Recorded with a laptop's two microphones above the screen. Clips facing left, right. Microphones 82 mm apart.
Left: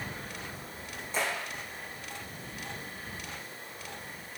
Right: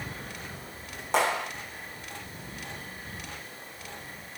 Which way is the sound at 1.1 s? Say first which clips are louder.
Right 7 dB; 75° right (ahead or behind).